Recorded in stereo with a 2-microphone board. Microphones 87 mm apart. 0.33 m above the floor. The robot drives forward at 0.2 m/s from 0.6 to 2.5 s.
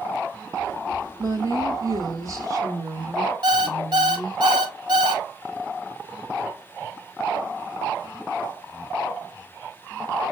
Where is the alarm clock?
60° right (ahead or behind), 1.1 m.